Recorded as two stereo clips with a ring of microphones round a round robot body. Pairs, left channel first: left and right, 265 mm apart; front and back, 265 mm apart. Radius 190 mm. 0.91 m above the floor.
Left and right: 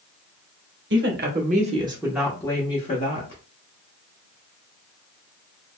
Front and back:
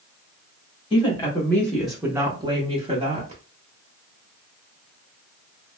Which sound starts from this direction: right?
A woman speaking, at 0.9 s.